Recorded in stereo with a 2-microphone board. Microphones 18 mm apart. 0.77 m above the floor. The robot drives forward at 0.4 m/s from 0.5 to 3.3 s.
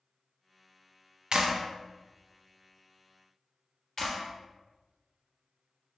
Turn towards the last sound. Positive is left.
turn(degrees=30)  # may be behind; listen again after turning